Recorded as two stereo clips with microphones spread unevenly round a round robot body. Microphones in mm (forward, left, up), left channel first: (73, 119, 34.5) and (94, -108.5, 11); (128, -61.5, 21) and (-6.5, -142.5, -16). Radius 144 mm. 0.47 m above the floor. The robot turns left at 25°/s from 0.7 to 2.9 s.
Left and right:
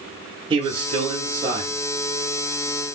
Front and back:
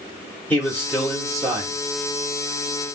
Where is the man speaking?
60° right, 0.8 m; by 1.8 s 90° right, 0.8 m.